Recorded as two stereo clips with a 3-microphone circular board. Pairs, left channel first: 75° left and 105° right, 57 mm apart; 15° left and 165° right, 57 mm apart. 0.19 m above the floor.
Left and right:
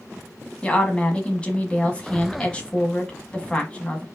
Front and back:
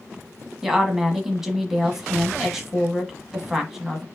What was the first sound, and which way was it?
A woman speaking, 120° left.